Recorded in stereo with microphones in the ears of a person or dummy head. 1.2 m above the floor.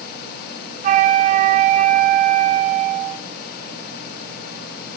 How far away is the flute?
About 0.6 m.